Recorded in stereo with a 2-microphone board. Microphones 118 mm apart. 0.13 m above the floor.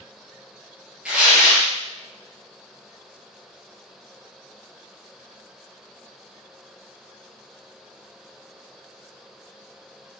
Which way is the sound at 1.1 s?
10° right (ahead or behind).